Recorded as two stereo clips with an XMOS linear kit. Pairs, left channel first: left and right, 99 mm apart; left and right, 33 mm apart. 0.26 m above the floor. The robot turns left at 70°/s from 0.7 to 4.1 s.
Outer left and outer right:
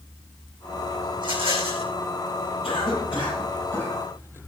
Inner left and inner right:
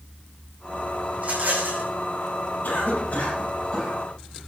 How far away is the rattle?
About 4 m.